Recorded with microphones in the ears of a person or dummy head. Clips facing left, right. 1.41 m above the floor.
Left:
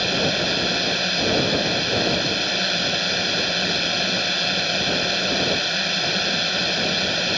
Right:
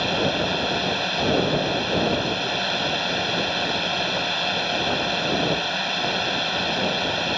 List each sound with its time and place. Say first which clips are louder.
0.0 s a drone: even; 30° left (ahead or behind)